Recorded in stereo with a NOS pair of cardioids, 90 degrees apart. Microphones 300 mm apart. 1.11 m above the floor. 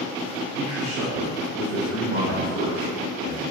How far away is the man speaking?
About 0.6 m.